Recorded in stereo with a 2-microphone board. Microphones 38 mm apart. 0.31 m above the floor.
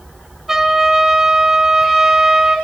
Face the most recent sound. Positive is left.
turn(degrees=-10)  # may be behind; listen again after turning